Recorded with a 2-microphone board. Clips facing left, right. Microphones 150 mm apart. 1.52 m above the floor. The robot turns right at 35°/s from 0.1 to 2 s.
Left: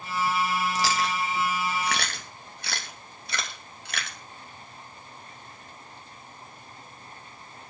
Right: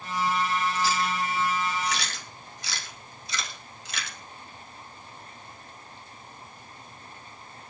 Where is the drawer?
No drawer in this recording.